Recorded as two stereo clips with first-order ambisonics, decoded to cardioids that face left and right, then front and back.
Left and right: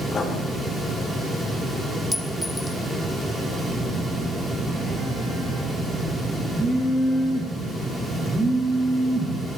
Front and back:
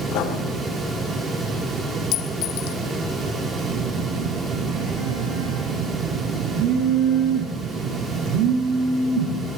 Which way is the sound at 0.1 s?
20° left.